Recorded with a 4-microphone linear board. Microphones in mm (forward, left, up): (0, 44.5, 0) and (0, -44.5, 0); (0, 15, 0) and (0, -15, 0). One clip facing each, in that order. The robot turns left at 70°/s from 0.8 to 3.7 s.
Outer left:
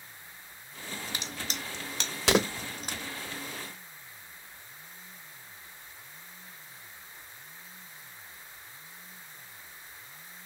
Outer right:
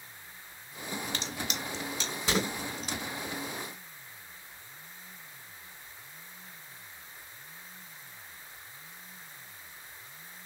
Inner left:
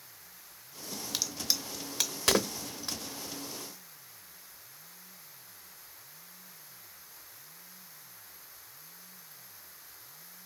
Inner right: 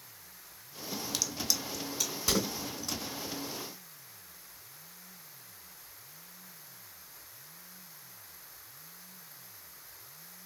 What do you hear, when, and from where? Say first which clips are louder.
1.1 s a crack: outer right 2 dB, inner left 1 dB; 10° left (ahead or behind), 0.7 m; by 3.0 s 40° left (ahead or behind), 0.7 m